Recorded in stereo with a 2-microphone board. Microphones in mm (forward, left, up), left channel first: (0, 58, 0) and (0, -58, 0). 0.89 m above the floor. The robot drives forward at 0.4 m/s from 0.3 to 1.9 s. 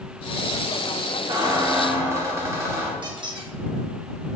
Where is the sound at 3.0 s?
40° right (ahead or behind), 0.6 m.